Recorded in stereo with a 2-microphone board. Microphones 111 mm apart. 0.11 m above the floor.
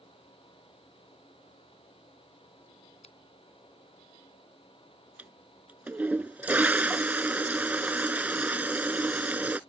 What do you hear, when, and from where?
3.0 s a finger snap: 70° left (ahead or behind)
5.2 s a toilet flushing: 15° right (ahead or behind)